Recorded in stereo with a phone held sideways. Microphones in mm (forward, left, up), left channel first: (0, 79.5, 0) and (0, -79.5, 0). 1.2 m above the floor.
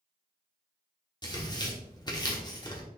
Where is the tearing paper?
25° left (ahead or behind), 2 m.